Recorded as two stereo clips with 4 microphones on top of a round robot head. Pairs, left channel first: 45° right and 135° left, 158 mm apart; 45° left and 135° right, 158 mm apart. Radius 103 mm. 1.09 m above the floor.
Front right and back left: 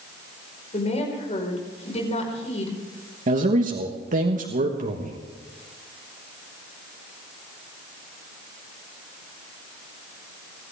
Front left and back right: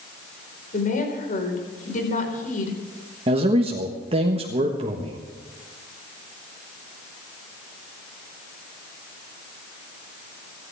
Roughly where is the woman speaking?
Ahead.